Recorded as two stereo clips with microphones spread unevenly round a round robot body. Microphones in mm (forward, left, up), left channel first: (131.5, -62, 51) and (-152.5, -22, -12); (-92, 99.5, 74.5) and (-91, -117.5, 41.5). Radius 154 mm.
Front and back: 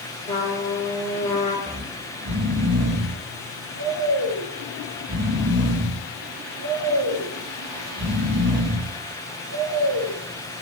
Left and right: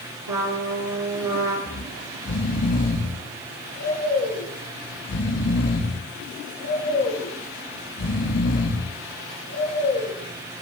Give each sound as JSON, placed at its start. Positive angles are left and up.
{"t": 0.3, "sound": "a trumpet", "azimuth_deg": -75, "distance_m": 2.0}
{"t": 1.7, "sound": "snoring", "azimuth_deg": 115, "distance_m": 1.5}